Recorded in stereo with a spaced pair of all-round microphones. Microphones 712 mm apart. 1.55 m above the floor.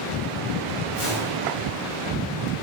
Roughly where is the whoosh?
Left.